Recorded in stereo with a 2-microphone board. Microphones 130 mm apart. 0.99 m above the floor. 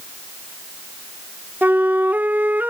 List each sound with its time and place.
1.6 s a flute: 15° right (ahead or behind)